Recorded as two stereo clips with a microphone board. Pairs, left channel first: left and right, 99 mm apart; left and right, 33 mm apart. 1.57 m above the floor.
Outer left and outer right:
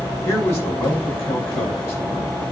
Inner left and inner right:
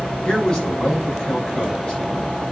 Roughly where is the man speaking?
Left.